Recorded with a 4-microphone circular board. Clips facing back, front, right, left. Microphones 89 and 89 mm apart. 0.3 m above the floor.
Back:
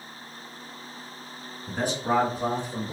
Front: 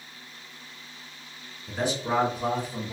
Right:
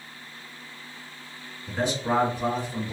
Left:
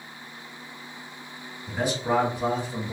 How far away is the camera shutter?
No camera shutter in this recording.